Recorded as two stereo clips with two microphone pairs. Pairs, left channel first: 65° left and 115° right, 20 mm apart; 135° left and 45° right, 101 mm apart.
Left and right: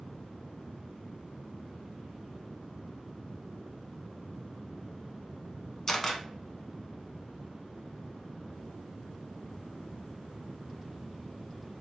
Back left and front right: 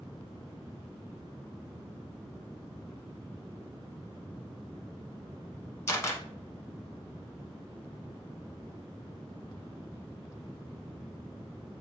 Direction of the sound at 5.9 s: 120° left.